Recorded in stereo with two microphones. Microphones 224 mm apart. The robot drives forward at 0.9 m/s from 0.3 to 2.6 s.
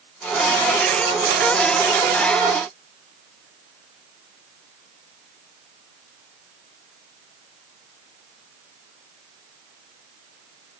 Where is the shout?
I don't hear a shout.